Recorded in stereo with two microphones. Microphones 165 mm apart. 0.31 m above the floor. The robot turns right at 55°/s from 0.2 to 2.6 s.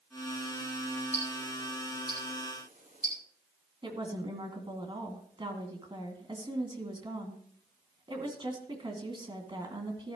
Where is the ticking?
50° right (ahead or behind), 5 m.